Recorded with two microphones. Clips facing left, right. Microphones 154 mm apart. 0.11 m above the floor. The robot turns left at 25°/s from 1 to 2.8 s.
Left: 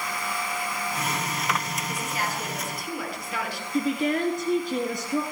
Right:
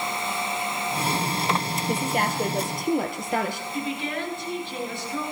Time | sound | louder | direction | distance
1.9 | a woman speaking | right 7 dB | 60° right (ahead or behind) | 2.5 m
3.7 | a woman speaking | left 9 dB | 45° left (ahead or behind) | 1.9 m